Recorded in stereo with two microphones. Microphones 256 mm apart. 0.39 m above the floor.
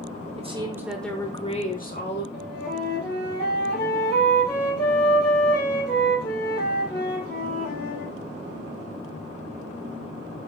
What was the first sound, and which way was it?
A woman speaking, 25° right (ahead or behind).